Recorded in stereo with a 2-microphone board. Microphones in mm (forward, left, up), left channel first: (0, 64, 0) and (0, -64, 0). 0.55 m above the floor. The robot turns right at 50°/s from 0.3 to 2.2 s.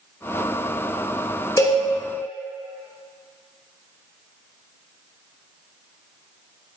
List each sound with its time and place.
1.6 s a cowbell: 25° left (ahead or behind), 0.7 m; by 1.8 s 15° left (ahead or behind), 0.7 m